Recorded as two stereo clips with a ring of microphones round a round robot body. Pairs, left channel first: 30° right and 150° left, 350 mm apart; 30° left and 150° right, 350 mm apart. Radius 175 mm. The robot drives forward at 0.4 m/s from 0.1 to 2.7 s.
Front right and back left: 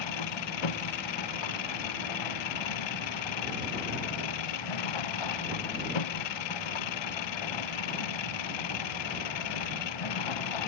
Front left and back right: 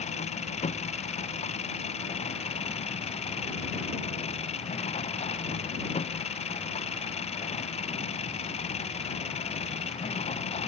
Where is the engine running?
40° right; by 10.7 s 45° right.